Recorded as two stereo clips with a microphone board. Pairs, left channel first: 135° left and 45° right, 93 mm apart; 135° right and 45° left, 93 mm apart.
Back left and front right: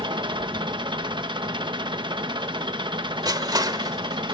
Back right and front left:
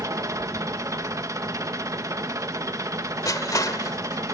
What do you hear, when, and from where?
0.0 s an engine running: 10° right, 1.3 m
3.2 s crushing: 85° right, 1.4 m